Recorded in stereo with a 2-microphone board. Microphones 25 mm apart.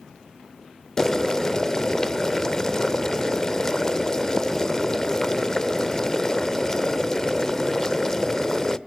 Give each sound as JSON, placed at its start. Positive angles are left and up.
{"t": 1.0, "sound": "boiling", "side_deg": 25, "distance_m": 0.5}